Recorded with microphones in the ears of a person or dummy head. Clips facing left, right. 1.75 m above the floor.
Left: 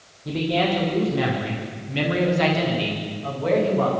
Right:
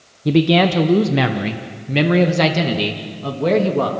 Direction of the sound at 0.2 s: 65° right (ahead or behind).